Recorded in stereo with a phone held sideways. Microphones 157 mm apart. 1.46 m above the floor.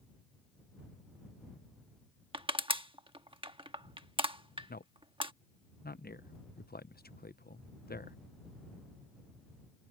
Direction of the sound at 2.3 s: 35° right (ahead or behind).